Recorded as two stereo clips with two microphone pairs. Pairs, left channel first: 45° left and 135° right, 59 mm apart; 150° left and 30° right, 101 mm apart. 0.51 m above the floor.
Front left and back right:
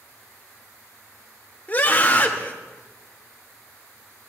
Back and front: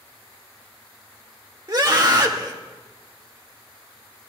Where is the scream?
5° right, 1.7 m.